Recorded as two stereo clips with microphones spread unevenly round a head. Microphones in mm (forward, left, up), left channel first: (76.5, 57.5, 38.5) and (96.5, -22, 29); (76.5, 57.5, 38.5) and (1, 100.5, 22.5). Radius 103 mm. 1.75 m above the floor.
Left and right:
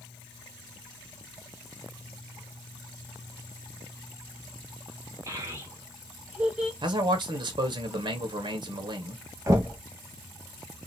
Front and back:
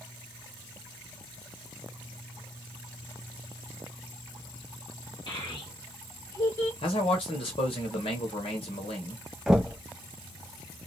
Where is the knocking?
100° right, 0.5 m.